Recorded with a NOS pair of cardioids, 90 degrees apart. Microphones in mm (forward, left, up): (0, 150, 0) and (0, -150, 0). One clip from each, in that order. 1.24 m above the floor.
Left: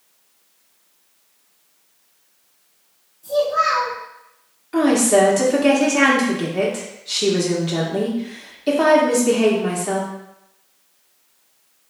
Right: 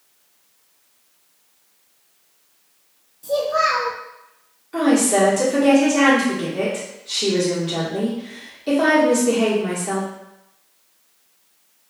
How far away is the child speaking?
About 0.7 m.